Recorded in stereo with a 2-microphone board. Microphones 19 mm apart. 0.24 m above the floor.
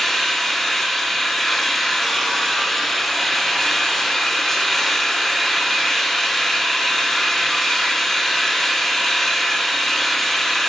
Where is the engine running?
20° left (ahead or behind), 2.5 m.